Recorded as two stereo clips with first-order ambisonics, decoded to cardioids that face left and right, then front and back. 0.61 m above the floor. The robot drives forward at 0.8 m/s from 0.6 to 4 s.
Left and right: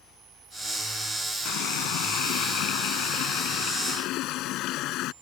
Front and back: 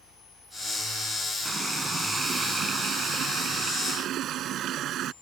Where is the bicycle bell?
No bicycle bell in this recording.